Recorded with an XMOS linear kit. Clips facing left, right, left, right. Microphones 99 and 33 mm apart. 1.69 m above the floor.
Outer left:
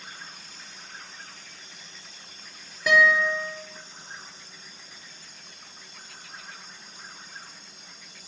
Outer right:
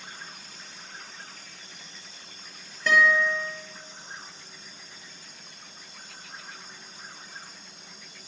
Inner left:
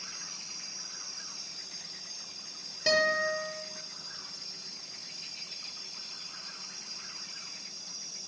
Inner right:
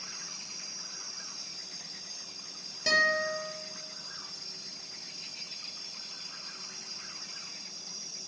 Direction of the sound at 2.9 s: 10° left (ahead or behind).